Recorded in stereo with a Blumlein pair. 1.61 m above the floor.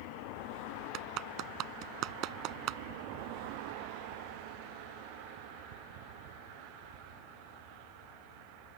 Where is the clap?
35° right.